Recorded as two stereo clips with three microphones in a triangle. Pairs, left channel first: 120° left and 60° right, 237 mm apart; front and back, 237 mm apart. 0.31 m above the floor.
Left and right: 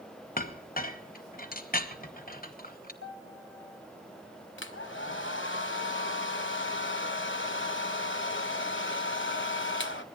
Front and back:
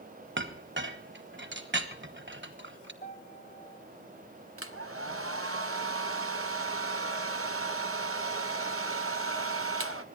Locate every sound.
0.4 s a clink: 165° left, 1.4 m
3.0 s a piano: 50° right, 2.5 m
4.6 s a hair dryer: 155° left, 1.3 m